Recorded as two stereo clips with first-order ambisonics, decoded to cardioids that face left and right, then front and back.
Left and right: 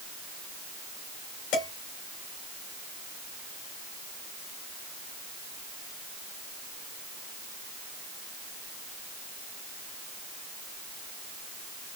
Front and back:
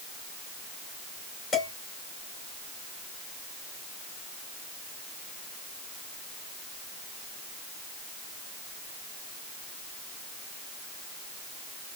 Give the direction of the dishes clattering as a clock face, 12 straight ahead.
10 o'clock.